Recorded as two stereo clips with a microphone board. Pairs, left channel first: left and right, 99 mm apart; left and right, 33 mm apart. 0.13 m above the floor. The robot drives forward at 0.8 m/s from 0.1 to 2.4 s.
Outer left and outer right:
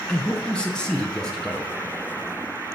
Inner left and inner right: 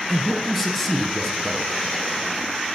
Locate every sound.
0.1 s a man speaking: 10° left (ahead or behind), 1.5 m; by 1.7 s 5° left (ahead or behind), 2.5 m